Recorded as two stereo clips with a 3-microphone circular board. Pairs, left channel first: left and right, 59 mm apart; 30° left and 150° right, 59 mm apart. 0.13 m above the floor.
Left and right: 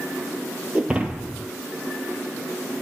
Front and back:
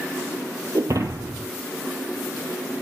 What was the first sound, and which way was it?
Breaking glass, 160° right.